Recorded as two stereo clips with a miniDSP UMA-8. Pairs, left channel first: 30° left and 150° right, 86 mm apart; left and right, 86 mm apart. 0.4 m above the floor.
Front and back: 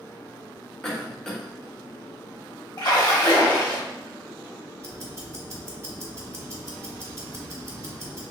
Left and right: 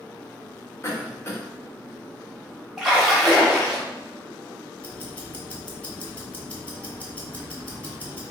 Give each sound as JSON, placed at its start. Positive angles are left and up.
{"t": 0.8, "sound": "a cough", "azimuth_deg": 105, "distance_m": 1.0}
{"t": 2.8, "sound": "a splash", "azimuth_deg": -5, "distance_m": 1.0}
{"t": 4.8, "sound": "ticking", "azimuth_deg": 160, "distance_m": 0.8}